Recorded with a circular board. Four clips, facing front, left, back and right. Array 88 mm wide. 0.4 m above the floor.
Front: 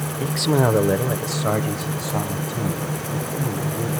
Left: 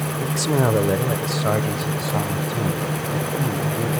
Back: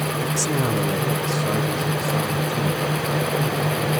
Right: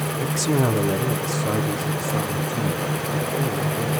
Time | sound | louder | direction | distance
0.2 | a man speaking | left 1 dB, front 8 dB | 15° right | 0.8 m